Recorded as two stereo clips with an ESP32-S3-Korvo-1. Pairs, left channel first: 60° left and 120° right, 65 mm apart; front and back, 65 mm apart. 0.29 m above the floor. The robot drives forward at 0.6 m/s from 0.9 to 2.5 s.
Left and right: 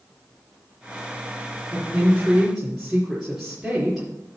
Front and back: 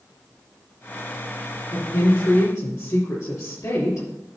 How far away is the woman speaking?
About 4 m.